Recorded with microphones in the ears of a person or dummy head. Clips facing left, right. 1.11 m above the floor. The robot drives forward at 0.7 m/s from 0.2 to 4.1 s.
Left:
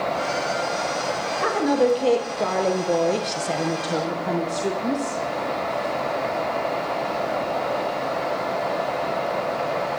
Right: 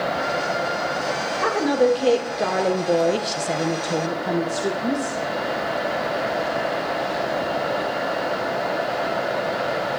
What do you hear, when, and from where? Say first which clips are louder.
1.4 s a woman speaking: right 1 dB; centre (ahead or behind), 1.5 m; by 5.2 s 5° right (ahead or behind), 0.6 m